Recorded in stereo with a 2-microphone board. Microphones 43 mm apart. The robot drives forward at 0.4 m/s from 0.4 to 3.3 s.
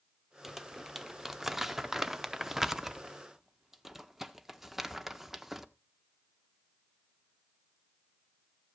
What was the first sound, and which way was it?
Crumpling, 5° right (ahead or behind).